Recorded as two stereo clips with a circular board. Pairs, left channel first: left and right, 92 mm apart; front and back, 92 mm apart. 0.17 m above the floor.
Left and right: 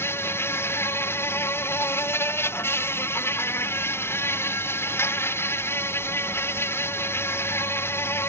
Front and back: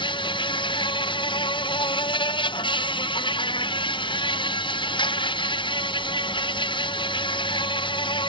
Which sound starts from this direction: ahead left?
An insect, at 0.0 s.